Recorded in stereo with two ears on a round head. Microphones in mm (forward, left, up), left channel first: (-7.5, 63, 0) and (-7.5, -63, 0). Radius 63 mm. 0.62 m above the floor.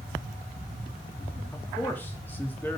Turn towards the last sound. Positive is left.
turn(degrees=15)  # may be behind; listen again after turning